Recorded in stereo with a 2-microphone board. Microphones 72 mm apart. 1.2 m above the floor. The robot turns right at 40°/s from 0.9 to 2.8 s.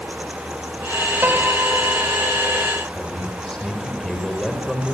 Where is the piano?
150° right, 3.5 m; by 2.7 s 90° right, 3.5 m.